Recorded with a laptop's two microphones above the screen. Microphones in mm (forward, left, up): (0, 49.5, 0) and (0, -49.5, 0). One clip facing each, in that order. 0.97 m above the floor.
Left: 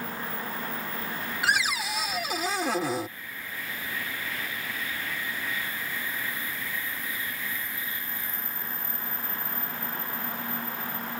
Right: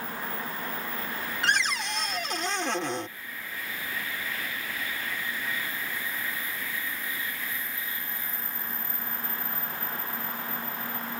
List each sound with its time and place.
1.4 s a cupboard door: 5° left (ahead or behind)